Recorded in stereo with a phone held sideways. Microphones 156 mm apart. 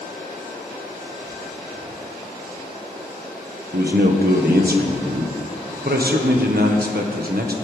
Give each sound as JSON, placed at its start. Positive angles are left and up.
{"t": 3.7, "sound": "a man speaking", "side_deg": -75, "distance_m": 1.2}